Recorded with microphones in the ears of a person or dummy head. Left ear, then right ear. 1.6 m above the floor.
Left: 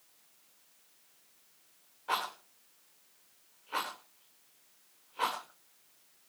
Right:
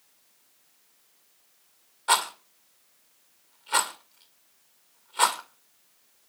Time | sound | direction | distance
2.1 | a rattle | 50° right (ahead or behind) | 1.8 m